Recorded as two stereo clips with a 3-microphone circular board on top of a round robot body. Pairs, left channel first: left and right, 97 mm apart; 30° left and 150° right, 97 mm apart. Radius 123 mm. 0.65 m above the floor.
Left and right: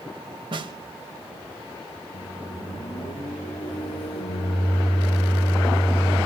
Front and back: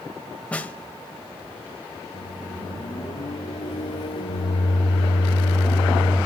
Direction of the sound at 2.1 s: 70° left.